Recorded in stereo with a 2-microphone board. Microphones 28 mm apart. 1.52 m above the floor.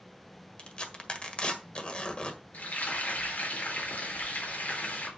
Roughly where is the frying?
Left.